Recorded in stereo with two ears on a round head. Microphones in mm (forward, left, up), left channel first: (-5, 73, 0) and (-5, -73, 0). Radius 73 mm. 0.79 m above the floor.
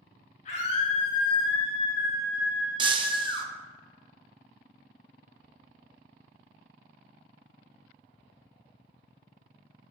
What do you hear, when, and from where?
0.5 s a scream: 50° left (ahead or behind), 5 m; by 3.5 s 35° left (ahead or behind), 6.5 m
2.8 s breaking glass: 30° right (ahead or behind), 0.7 m